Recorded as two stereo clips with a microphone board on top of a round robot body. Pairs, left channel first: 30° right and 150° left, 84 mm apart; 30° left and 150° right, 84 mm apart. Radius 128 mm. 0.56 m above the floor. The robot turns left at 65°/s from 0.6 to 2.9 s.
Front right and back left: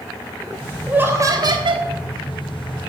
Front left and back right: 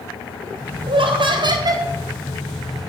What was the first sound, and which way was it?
Laughter, 135° right.